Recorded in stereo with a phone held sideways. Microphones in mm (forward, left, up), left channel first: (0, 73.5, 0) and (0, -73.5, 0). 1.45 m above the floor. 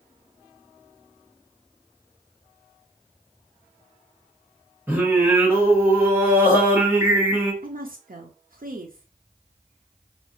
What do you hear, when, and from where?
4.9 s singing: 15° right (ahead or behind), 1.5 m
7.6 s a woman speaking: 65° right (ahead or behind), 0.5 m